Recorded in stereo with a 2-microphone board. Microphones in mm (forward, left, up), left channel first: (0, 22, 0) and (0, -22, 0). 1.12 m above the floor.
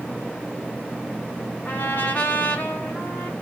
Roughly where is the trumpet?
Left.